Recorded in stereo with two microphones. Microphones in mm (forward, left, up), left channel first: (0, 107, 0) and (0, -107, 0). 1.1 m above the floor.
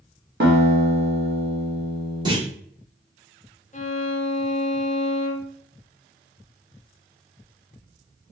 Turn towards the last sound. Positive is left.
turn(degrees=35)  # may be behind; listen again after turning